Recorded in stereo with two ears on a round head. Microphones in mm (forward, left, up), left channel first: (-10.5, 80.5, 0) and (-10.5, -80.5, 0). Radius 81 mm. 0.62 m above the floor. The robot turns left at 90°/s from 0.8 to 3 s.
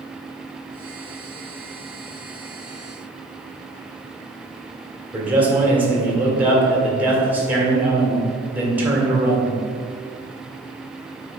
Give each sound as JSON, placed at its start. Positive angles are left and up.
{"t": 5.1, "sound": "a man speaking", "side_deg": -10, "distance_m": 1.8}